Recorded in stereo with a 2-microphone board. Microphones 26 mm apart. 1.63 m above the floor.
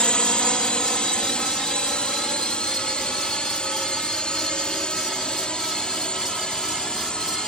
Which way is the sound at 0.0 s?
45° left (ahead or behind).